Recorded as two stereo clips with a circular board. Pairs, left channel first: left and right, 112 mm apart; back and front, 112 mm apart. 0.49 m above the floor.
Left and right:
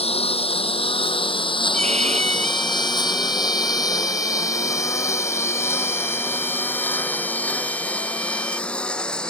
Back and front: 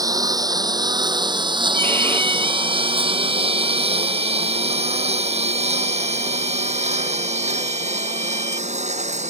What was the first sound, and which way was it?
A lawn mower, 60° left.